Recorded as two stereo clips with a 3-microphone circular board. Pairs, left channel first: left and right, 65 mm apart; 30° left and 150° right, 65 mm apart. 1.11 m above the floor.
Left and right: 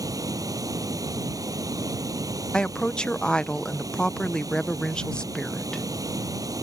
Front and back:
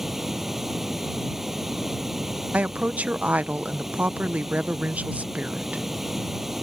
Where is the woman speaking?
160° left.